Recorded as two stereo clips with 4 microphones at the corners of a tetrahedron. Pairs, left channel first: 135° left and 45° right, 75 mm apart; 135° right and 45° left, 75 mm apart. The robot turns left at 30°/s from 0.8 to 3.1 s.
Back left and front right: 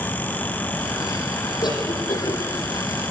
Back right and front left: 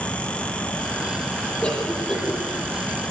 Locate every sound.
1.6 s a cough: 150° left, 9.5 m; by 2.4 s 125° left, 9.5 m